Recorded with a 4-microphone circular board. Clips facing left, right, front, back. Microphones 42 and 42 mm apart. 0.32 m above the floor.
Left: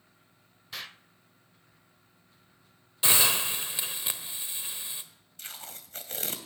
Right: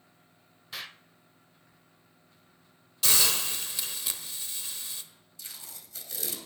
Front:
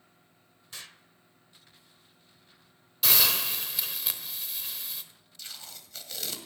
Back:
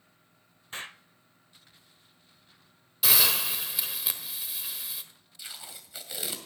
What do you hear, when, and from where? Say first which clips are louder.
0.7 s an explosion: even, back 7 dB; straight behind, 0.6 m
3.0 s a hiss: left 2 dB, even; 100° left, 1.3 m
5.4 s tape being pulled: left 4 dB, back 1 dB; 110° left, 2 m